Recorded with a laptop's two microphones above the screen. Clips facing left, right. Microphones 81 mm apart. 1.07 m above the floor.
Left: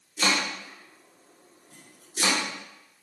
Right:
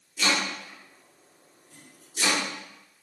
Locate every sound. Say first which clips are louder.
0.2 s chopping: even; 40° left (ahead or behind), 0.9 m